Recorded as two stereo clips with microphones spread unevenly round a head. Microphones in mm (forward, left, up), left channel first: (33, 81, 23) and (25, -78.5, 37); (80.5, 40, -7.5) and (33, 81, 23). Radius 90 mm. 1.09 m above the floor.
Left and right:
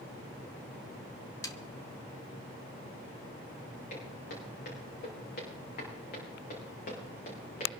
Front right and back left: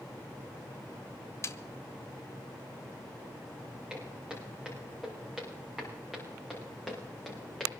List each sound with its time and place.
1.4 s a snare drum: 20° left, 1.2 m
3.9 s footsteps: 65° left, 8 m; by 7.8 s 50° left, 6.5 m